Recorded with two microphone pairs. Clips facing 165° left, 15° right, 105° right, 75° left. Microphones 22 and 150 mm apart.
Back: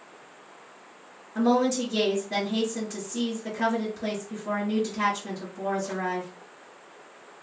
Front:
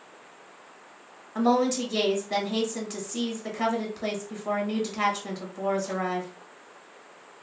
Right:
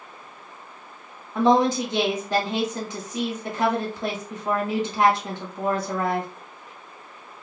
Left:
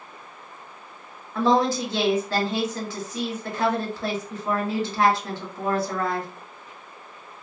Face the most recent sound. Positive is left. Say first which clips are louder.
# even, right 2 dB
turn(degrees=-45)